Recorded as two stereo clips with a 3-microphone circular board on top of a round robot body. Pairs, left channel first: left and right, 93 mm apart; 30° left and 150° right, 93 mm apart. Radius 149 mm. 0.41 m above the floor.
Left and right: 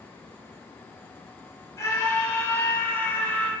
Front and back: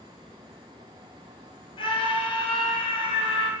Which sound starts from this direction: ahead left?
A scream, at 1.8 s.